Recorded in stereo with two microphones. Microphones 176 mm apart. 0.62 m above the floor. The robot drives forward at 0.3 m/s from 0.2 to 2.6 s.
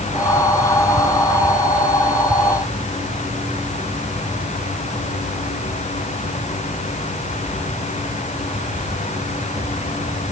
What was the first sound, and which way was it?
Only background noise.